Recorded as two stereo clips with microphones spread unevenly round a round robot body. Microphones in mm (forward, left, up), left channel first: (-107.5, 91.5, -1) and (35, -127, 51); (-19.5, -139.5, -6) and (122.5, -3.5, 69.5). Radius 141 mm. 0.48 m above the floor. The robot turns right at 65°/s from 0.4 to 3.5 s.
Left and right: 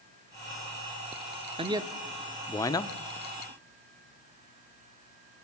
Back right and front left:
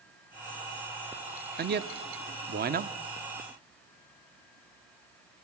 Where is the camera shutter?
I don't hear a camera shutter.